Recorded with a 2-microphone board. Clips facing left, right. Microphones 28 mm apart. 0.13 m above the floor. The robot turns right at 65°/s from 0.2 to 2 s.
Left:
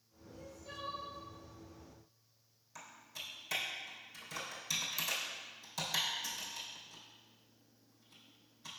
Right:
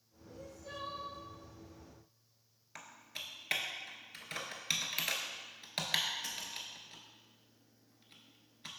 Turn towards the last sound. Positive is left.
turn(degrees=-55)  # may be behind; listen again after turning